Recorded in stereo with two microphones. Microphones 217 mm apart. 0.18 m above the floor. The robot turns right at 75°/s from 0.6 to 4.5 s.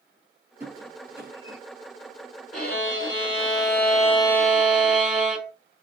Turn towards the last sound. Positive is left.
turn(degrees=-175)